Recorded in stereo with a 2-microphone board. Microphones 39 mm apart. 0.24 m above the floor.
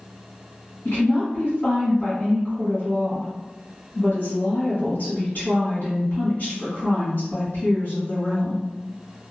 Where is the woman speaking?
55° left (ahead or behind), 1.7 m.